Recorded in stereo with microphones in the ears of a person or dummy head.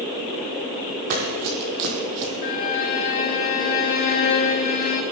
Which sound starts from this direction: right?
Running footsteps, at 1.1 s.